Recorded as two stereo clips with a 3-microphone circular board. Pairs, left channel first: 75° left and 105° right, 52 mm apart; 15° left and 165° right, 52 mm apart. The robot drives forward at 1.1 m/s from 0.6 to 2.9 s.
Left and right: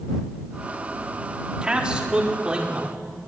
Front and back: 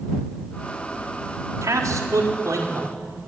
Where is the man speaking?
Straight behind, 4 m.